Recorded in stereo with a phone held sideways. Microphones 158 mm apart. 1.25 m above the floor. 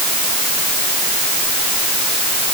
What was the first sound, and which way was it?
Only background noise.